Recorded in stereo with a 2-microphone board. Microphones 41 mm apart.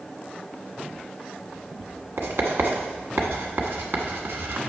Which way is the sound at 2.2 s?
65° right (ahead or behind).